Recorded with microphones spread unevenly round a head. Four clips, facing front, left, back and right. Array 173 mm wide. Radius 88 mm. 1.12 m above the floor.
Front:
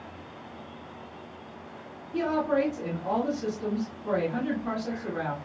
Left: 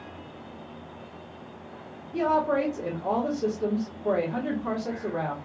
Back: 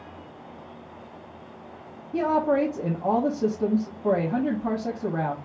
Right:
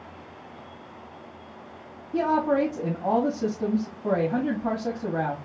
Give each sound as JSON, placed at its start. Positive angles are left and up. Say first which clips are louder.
{"t": 2.1, "sound": "a woman speaking", "louder": "right 1 dB, back 4 dB", "azimuth_deg": -140, "distance_m": 1.7}